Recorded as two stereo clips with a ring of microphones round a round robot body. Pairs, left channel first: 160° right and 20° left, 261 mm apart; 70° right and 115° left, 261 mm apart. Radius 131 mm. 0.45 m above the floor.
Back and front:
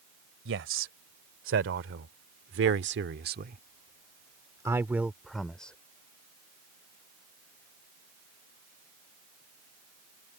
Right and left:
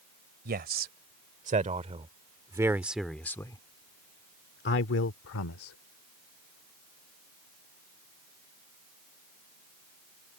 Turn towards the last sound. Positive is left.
turn(degrees=-70)